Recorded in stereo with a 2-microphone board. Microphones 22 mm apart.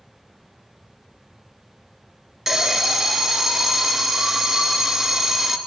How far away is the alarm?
About 1.4 m.